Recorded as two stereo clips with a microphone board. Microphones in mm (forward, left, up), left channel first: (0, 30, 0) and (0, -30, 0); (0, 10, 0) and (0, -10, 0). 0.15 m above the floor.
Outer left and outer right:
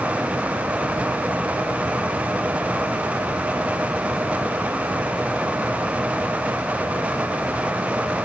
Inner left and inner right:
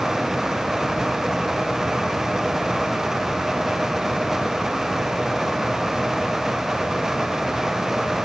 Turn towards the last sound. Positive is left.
No sound to turn to.